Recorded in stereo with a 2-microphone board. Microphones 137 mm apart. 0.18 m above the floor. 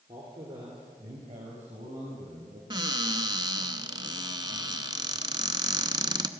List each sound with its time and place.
0.1 s a man speaking: 30° right (ahead or behind), 3 m; by 2.6 s 55° right (ahead or behind), 4 m
2.7 s a cupboard door: 30° right (ahead or behind), 0.8 m